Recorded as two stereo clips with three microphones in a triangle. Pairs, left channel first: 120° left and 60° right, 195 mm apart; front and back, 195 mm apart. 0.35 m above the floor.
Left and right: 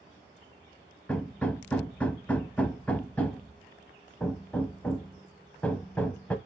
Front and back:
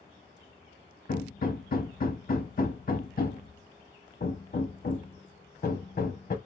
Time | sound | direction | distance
1.1 | hammering | 35° left | 0.5 m